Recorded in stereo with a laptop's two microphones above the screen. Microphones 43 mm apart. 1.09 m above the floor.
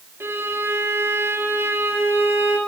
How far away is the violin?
About 1.6 m.